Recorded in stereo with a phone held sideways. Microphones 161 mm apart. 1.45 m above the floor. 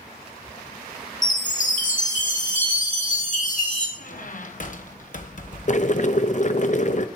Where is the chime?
50° left (ahead or behind), 1.9 m.